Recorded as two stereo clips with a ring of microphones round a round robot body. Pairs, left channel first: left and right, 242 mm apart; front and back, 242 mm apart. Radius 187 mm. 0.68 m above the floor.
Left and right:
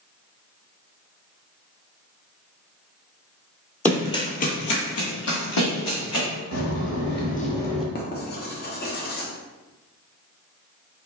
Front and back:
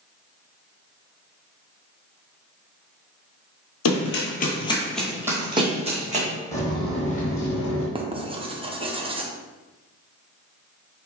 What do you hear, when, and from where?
3.9 s running footsteps: 10° left, 1.2 m; by 6.2 s 120° left, 2.5 m
6.5 s footsteps: 80° left, 1.8 m; by 7.8 s 5° right, 1.1 m
8.0 s writing: 120° left, 0.8 m